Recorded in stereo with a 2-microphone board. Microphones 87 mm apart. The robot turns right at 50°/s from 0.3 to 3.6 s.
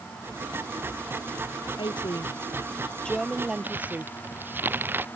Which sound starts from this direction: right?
Crumpling, at 3.6 s.